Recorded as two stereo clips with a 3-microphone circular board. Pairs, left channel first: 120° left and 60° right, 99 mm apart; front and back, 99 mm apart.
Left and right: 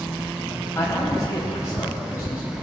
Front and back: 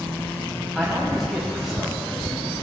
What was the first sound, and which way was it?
A man speaking, 95° left.